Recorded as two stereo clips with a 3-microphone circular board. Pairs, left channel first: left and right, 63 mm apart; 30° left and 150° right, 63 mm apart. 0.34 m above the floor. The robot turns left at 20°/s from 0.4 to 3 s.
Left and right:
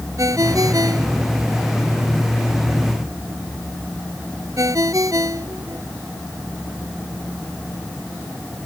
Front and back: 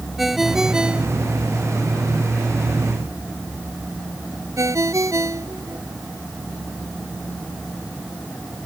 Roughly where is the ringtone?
Ahead right.